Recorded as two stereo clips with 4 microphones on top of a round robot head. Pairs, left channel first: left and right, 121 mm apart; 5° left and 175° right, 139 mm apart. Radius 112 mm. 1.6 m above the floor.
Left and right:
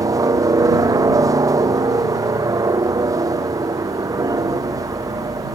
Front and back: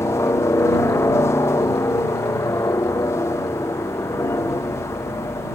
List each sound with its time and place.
0.0 s a helicopter: 55° right